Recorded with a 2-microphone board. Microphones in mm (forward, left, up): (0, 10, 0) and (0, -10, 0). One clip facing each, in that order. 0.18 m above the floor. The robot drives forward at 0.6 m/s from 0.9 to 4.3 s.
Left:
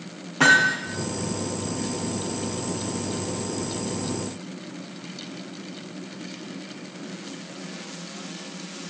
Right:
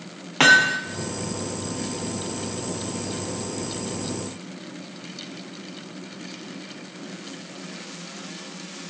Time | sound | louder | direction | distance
0.4 | hammering | right 2 dB | 55° right (ahead or behind) | 2 m